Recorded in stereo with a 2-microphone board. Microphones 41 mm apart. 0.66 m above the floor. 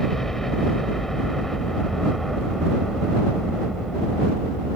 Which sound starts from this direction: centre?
A helicopter, at 0.0 s.